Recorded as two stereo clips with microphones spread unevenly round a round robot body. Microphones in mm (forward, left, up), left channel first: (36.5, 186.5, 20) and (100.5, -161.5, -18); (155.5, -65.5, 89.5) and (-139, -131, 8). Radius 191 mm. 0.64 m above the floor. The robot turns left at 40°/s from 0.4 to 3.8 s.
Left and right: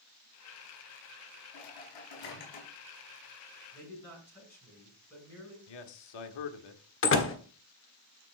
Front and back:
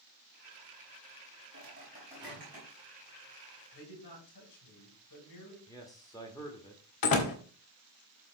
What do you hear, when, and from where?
1.5 s a microwave: 135° left, 5 m; by 2.7 s 90° left, 5 m
3.7 s a man speaking: 20° left, 7.5 m; by 5.6 s 15° left, 7.5 m
5.7 s a man speaking: 100° left, 1.5 m
7.0 s a door slam: 45° left, 1.6 m